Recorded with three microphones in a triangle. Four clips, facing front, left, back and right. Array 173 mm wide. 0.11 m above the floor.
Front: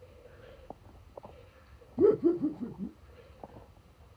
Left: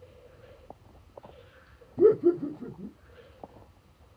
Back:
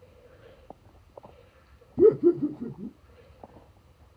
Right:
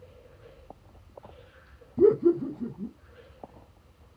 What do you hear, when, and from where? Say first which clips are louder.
2.0 s laughter: even, back 5 dB; 170° right, 1.7 m